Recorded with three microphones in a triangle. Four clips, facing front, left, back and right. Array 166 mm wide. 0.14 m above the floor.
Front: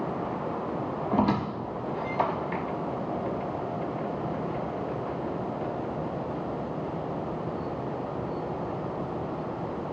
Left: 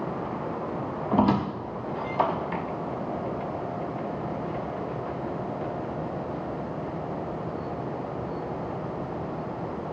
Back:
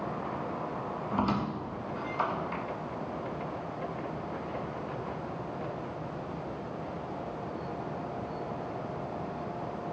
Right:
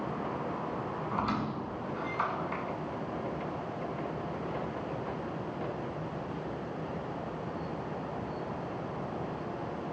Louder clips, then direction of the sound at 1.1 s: Left 11 dB, front 5 dB; 65° left.